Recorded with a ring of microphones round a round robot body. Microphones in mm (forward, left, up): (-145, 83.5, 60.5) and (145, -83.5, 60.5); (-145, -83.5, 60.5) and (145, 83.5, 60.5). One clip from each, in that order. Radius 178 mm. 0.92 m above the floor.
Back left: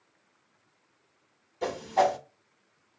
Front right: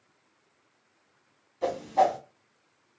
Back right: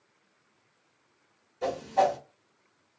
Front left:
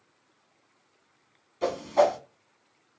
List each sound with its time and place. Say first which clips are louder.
1.6 s a whoosh: front right 1 dB, front left 2 dB; 95° left, 0.9 m